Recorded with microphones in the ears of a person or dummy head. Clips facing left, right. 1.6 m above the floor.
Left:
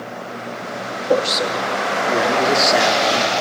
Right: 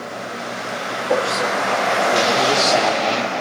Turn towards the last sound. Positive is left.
turn(degrees=10)  # may be behind; listen again after turning